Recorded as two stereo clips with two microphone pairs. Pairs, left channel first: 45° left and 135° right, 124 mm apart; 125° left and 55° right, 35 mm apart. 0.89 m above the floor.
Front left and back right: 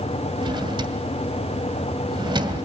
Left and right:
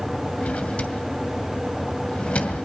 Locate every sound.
0.4 s a drawer: 175° left, 2.0 m